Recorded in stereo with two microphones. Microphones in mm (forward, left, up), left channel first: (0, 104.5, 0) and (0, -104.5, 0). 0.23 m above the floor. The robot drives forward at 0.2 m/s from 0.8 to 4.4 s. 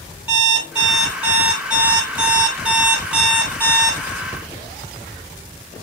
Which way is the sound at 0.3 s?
5° right (ahead or behind).